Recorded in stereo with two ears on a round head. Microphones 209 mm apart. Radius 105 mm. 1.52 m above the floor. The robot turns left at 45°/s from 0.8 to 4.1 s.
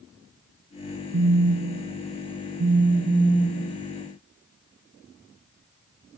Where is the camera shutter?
I don't hear a camera shutter.